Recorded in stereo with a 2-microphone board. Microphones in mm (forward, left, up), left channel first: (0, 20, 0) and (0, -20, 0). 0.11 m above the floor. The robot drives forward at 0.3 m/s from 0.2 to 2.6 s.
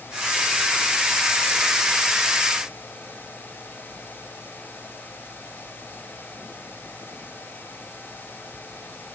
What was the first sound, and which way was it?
Only background noise.